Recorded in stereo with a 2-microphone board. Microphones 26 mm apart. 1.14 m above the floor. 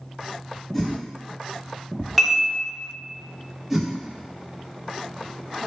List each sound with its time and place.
0.7 s a whoosh: 10° left (ahead or behind), 0.6 m
2.2 s dishes clattering: 5° right (ahead or behind), 0.8 m
3.7 s a whoosh: 10° right (ahead or behind), 0.6 m